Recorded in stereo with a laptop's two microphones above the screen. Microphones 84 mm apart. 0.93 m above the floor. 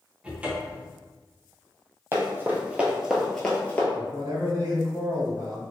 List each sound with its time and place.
0.2 s a cupboard door: 15° right (ahead or behind), 0.6 m
2.1 s running footsteps: 30° right (ahead or behind), 1.3 m; by 3.8 s 20° left (ahead or behind), 1.0 m
3.9 s a man speaking: 60° right (ahead or behind), 1.9 m